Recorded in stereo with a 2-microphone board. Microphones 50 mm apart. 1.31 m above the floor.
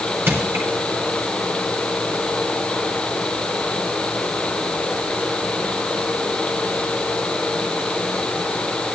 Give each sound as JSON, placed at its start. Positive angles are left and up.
{"t": 0.3, "sound": "crushing", "side_deg": -50, "distance_m": 4.0}